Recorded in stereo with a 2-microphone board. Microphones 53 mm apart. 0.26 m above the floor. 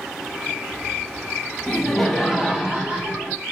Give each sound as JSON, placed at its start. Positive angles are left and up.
{"t": 1.7, "sound": "laughter", "side_deg": 5, "distance_m": 1.7}